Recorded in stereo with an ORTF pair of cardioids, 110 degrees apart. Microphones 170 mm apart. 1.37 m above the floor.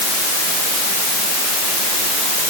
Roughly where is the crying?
I don't hear crying.